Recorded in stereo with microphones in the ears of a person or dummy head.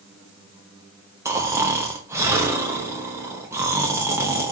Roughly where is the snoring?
Centre.